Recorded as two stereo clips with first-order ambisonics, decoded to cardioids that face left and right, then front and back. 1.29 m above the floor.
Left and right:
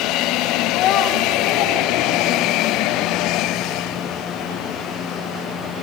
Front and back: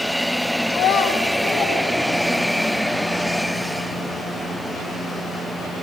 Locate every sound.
0.7 s a child speaking: 40° left, 1.0 m; by 2.7 s 70° left, 2.5 m